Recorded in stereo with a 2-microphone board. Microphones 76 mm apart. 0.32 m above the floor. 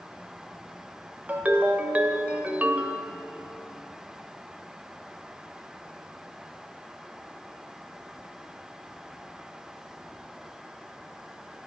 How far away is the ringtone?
About 0.6 m.